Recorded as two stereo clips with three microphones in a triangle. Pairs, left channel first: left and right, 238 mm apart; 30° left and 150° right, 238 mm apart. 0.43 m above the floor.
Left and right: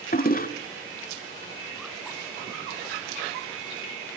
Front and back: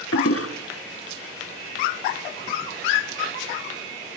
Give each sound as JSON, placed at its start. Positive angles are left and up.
{"t": 0.1, "sound": "a toilet flushing", "azimuth_deg": 40, "distance_m": 1.9}